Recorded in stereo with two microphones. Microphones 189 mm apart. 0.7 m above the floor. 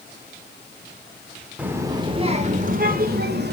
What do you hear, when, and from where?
1.6 s a child speaking: 10° right (ahead or behind), 1.3 m; by 3.5 s 60° right (ahead or behind), 1.8 m